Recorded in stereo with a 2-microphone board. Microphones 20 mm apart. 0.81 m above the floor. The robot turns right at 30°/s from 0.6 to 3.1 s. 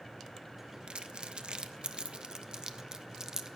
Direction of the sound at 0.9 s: 55° right (ahead or behind).